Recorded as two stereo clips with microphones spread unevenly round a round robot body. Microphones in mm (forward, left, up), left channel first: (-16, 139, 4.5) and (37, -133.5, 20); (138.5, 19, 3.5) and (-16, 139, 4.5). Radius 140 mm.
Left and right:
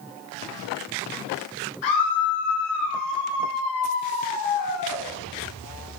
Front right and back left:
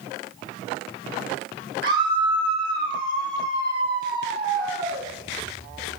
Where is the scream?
110° left, 9 m.